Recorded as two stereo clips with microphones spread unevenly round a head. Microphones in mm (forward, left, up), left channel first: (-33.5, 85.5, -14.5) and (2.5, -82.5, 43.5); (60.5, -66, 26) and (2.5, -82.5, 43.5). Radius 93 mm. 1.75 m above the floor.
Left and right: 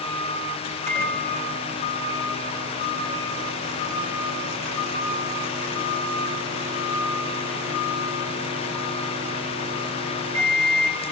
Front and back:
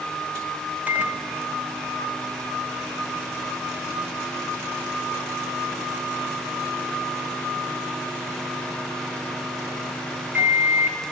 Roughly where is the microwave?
Right.